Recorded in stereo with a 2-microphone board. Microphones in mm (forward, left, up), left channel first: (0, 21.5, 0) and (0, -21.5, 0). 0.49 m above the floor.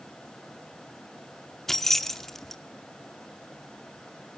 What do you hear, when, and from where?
1.7 s keys jangling: 5° left (ahead or behind), 0.6 m